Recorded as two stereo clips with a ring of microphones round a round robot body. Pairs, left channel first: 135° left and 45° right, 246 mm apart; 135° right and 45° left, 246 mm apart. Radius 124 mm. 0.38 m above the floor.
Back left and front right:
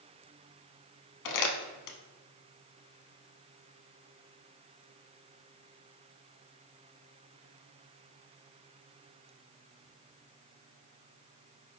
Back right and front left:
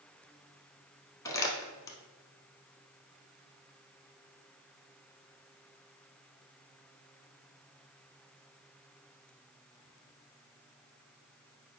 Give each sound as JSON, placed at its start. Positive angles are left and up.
{"t": 1.2, "sound": "crumpling", "azimuth_deg": 150, "distance_m": 0.7}